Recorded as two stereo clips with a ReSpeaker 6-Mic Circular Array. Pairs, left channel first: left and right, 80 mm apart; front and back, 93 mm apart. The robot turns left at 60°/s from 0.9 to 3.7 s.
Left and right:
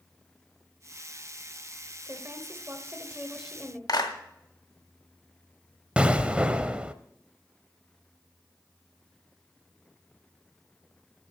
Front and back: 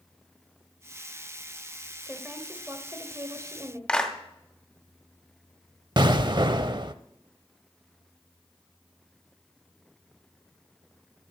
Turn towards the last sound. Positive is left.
turn(degrees=-160)